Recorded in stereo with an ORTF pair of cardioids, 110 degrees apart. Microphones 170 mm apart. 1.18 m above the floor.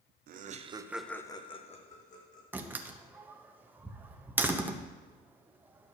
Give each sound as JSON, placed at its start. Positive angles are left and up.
{"t": 0.3, "sound": "laughter", "azimuth_deg": -60, "distance_m": 0.9}
{"t": 2.5, "sound": "a door slam", "azimuth_deg": -10, "distance_m": 0.8}